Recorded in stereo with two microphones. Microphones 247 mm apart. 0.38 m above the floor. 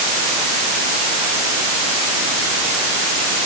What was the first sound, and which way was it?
Only background noise.